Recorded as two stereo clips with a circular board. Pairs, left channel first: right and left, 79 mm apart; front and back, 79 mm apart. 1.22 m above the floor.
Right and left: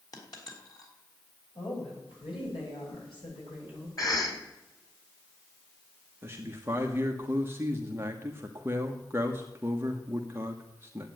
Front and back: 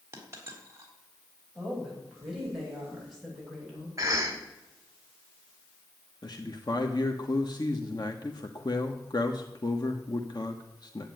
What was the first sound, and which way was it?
A dropped coin, 125° right.